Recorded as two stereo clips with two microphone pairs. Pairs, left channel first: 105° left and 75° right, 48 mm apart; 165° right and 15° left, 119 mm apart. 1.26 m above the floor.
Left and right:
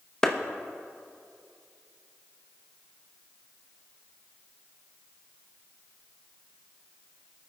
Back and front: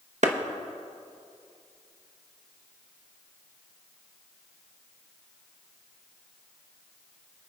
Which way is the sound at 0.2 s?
25° left.